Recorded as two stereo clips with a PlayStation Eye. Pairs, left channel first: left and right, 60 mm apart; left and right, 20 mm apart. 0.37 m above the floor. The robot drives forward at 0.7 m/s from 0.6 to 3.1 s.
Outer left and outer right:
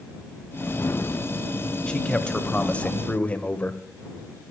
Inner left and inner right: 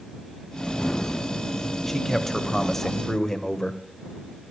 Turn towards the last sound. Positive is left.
turn(degrees=20)  # may be behind; listen again after turning